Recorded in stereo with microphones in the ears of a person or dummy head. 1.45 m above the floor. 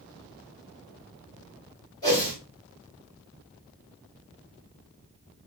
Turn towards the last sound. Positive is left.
turn(degrees=20)  # may be behind; listen again after turning